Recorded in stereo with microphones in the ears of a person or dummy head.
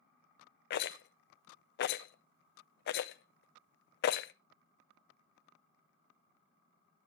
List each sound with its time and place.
0.7 s a rattle: 55° left (ahead or behind), 0.5 m